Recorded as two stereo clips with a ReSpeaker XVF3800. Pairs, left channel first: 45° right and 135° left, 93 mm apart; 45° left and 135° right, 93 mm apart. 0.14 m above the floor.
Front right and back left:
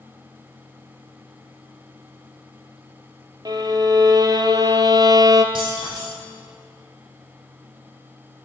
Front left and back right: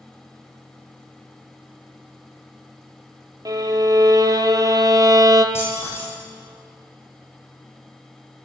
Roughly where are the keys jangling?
Left.